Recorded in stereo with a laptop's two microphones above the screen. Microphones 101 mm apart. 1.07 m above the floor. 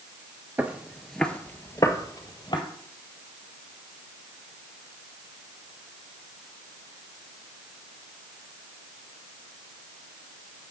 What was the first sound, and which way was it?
Footsteps, 20° right (ahead or behind).